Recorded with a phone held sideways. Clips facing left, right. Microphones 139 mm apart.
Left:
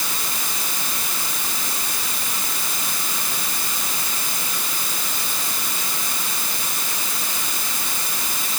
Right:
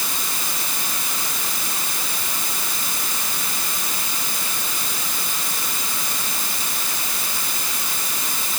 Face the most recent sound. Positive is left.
No sound to turn to.